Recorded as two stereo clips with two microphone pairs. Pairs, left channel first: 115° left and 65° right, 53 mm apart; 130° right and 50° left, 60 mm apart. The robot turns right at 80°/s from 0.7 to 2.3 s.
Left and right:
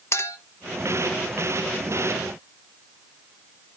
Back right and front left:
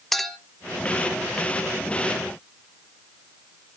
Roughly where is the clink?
Behind left.